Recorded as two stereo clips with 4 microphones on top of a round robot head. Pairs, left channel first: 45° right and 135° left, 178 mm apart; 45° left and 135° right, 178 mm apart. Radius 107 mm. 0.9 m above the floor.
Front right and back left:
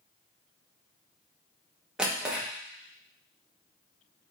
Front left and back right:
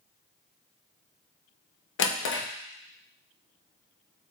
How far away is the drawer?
About 0.7 m.